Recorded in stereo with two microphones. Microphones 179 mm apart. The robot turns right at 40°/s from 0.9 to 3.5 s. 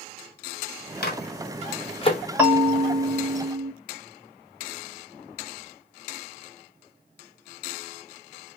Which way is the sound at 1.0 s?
60° left (ahead or behind).